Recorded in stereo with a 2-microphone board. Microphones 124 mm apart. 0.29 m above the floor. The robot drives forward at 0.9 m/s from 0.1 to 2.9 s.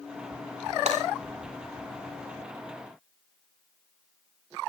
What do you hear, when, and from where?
0.9 s breaking glass: 65° right (ahead or behind), 9 m